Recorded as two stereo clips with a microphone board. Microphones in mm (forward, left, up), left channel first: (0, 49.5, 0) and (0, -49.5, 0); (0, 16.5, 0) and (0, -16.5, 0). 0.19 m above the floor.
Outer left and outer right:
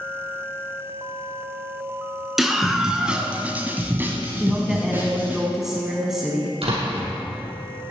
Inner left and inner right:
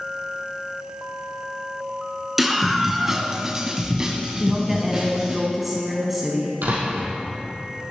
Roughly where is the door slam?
Right.